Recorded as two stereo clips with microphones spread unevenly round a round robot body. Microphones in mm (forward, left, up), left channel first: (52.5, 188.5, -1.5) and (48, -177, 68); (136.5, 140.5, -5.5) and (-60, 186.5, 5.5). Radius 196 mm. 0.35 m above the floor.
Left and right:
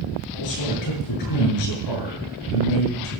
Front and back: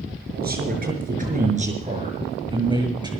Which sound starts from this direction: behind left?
A man speaking, at 0.3 s.